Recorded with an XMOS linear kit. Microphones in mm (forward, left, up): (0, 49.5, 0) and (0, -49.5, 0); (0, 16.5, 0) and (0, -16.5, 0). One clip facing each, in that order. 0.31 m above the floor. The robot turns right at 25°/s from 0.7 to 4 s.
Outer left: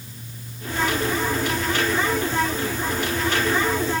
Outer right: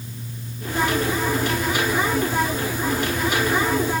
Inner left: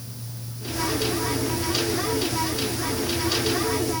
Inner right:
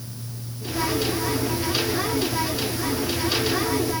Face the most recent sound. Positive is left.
No sound to turn to.